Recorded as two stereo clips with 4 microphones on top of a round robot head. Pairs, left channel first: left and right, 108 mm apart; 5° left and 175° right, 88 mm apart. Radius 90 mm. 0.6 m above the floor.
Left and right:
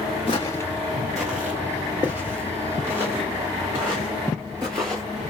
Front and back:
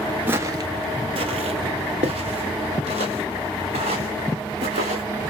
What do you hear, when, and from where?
0.3 s footsteps: 130° left, 0.6 m; by 5.0 s 160° right, 4 m